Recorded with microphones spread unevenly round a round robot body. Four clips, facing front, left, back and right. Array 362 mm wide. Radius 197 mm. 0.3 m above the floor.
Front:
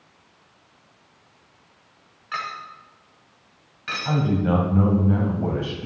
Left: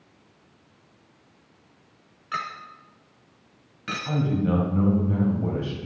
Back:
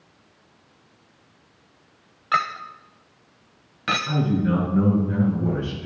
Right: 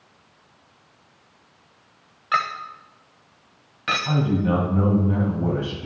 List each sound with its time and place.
2.3 s a clink: 170° right, 0.7 m
4.0 s a man speaking: 25° right, 2 m